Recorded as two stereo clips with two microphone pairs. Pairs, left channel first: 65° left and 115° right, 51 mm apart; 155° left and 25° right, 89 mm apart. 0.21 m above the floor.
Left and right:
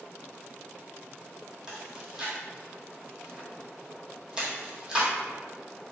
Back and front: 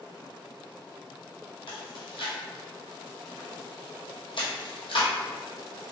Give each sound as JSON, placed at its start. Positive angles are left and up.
{"t": 1.7, "sound": "chewing", "azimuth_deg": 170, "distance_m": 1.1}